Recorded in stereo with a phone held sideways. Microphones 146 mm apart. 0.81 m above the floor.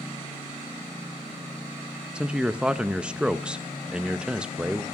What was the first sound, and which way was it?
A man speaking, 5° right (ahead or behind).